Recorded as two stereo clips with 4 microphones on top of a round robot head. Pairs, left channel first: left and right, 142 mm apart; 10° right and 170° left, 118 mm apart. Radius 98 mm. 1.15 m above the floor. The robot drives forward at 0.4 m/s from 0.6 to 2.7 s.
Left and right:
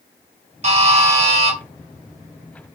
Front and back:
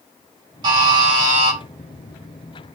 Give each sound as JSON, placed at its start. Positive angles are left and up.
{"t": 0.6, "sound": "a buzzer", "azimuth_deg": -130, "distance_m": 3.5}